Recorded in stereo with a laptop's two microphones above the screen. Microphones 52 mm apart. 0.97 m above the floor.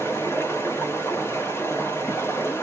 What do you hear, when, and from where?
0.0 s running water: 50° left (ahead or behind), 1.0 m